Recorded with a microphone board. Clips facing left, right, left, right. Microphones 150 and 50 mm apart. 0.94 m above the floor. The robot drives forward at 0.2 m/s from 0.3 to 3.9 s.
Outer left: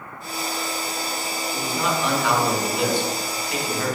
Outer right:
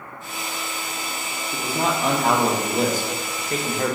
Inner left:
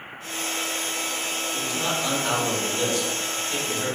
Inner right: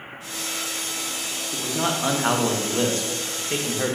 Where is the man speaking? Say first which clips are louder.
Outer right 2 dB, inner right 4 dB; 40° right (ahead or behind), 0.7 m.